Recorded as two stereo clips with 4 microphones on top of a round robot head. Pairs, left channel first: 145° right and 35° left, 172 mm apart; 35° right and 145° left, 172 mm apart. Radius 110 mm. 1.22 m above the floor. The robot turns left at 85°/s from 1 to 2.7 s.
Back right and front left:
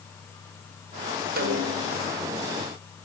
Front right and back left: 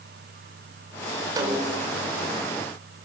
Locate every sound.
1.4 s a snare drum: 75° left, 4 m; by 1.9 s 25° left, 4 m